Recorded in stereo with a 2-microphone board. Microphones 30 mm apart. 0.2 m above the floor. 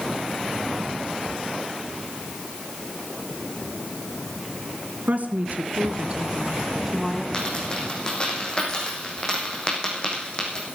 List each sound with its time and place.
5.1 s a woman speaking: 65° right (ahead or behind), 2.5 m; by 7.2 s 10° left (ahead or behind), 1.4 m
7.3 s a dropped coin: 30° left (ahead or behind), 4.5 m